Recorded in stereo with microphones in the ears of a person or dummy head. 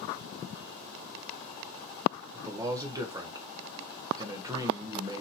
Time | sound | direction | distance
2.3 | a man speaking | 15° right (ahead or behind) | 0.6 m